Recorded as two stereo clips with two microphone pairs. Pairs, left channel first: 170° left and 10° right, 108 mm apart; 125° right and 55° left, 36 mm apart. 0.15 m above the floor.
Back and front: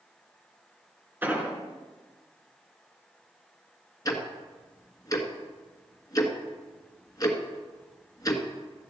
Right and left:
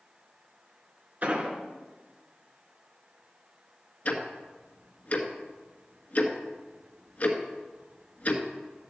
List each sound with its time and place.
1.2 s an explosion: 55° left, 1.8 m
4.0 s ticking: 150° right, 1.5 m